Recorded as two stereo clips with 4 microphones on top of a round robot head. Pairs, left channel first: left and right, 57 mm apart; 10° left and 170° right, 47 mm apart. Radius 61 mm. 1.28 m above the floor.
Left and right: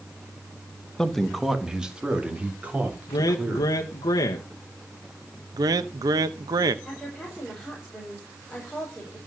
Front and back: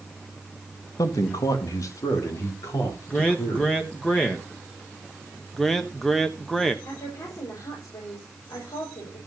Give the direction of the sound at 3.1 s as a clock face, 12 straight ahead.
9 o'clock.